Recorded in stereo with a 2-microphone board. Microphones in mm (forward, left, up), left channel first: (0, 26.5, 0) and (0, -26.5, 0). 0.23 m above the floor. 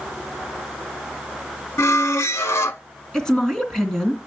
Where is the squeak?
60° left (ahead or behind), 0.6 m.